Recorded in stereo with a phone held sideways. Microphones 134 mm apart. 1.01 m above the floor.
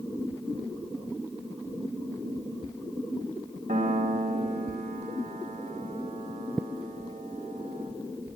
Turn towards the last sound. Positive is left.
turn(degrees=-65)  # may be behind; listen again after turning